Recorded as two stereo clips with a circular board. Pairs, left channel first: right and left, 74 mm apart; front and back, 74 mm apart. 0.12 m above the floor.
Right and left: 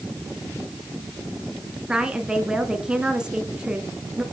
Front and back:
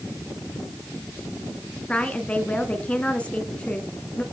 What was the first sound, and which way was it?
A woman speaking, 35° left.